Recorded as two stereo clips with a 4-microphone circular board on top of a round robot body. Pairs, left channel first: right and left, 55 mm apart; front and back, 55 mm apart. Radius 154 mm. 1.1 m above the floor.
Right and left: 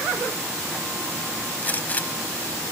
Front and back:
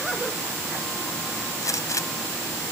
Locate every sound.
1.6 s a gunshot: 30° right